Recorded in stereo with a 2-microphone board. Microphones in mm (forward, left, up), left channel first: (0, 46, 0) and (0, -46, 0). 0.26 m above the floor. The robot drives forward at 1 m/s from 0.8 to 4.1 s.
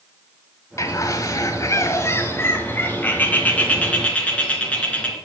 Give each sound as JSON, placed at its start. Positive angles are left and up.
{"t": 0.8, "sound": "a bird", "side_deg": 35, "distance_m": 1.4}